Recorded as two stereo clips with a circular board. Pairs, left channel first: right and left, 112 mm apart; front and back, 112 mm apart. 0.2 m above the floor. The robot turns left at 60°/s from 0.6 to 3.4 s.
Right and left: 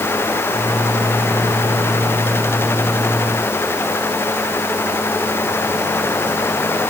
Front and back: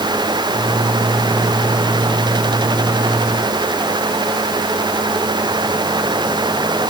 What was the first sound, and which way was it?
Only background noise.